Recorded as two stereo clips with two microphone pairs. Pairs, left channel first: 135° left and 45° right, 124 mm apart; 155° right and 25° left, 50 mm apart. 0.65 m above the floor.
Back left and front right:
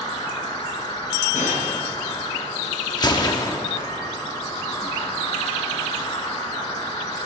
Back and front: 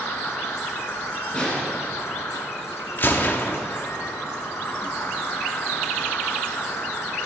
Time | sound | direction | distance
0.0 | an insect | 170° right | 2.5 m
1.3 | a snare drum | 135° left | 3.5 m
3.0 | a gunshot | straight behind | 1.0 m